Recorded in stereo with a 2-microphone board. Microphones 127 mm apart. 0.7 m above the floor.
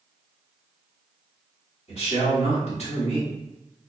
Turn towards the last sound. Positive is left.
turn(degrees=55)  # may be behind; listen again after turning